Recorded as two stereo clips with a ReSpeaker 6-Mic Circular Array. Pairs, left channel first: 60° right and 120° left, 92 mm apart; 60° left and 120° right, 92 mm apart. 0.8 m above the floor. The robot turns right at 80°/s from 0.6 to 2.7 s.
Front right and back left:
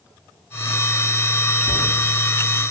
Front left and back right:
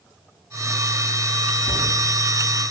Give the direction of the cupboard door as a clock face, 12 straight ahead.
7 o'clock.